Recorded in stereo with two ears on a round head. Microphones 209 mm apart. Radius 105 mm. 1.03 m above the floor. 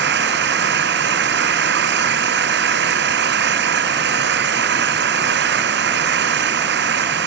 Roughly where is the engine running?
Right.